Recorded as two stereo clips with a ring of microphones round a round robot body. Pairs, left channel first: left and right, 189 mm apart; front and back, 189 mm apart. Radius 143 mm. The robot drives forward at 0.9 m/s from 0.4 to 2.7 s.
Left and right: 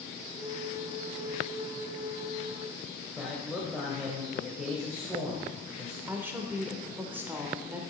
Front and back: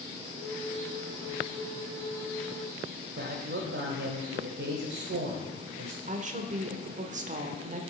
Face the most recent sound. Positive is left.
turn(degrees=-165)